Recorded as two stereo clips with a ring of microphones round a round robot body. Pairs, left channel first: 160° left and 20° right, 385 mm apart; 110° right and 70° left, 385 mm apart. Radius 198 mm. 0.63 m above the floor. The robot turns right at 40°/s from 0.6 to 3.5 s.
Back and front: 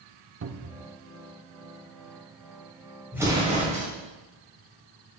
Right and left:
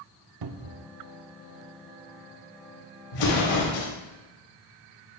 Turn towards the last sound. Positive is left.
turn(degrees=-95)